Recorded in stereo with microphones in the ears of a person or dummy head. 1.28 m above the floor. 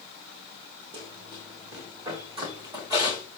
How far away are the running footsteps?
About 2.5 m.